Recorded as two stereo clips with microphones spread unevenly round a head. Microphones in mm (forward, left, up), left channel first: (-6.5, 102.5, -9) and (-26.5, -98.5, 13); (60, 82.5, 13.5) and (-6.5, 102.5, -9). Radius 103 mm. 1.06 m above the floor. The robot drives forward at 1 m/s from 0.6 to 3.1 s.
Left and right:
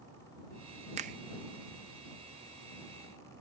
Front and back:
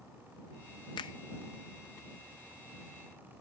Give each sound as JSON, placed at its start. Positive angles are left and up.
{"t": 1.0, "sound": "a finger snap", "azimuth_deg": -35}